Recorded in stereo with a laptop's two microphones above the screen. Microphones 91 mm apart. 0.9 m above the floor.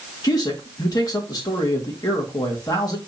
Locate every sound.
0.2 s a man speaking: 45° left (ahead or behind), 1.6 m